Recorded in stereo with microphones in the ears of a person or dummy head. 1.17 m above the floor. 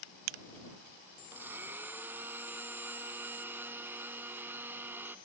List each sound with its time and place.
1.3 s a blender: 15° right (ahead or behind)